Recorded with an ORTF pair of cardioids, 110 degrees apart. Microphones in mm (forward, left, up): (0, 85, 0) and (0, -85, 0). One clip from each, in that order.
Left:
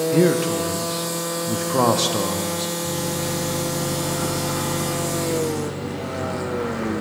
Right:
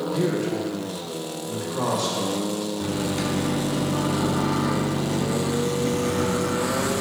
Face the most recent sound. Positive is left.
turn(degrees=-70)